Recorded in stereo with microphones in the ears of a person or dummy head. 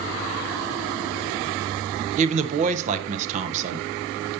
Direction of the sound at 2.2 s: 45° right (ahead or behind).